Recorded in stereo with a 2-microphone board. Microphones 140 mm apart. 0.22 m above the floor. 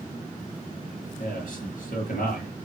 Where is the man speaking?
65° left (ahead or behind), 4.5 m.